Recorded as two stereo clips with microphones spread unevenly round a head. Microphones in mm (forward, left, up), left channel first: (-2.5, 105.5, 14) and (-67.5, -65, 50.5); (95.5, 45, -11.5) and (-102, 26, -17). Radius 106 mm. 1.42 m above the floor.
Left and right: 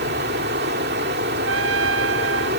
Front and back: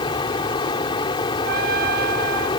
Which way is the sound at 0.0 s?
65° right.